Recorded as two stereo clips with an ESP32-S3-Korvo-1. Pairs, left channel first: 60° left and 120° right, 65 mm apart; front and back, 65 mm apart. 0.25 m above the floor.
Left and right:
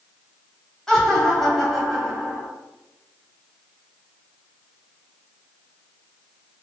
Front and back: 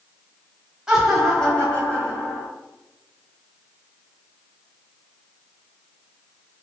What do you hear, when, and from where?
0.9 s laughter: 125° left, 1.3 m; by 2.5 s 40° right, 1.9 m